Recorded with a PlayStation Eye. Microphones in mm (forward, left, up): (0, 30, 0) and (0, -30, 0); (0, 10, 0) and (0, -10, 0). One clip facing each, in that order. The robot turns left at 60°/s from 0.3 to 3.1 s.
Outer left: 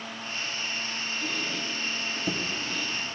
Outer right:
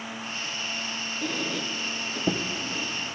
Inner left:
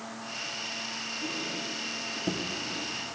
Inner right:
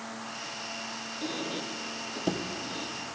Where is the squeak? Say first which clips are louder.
Outer right 4 dB, inner right 3 dB; 50° right (ahead or behind), 0.5 m; by 2.9 s 15° right (ahead or behind), 0.5 m.